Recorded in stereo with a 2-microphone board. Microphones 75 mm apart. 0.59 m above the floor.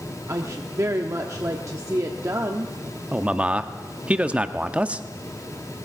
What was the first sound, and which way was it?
A woman speaking, 45° right (ahead or behind).